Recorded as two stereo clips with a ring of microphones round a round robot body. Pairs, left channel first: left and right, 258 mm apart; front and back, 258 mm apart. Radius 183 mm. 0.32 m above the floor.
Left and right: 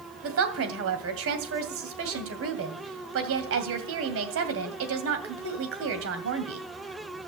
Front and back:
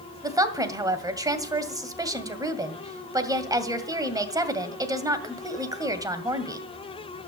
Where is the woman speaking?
105° right, 2 m.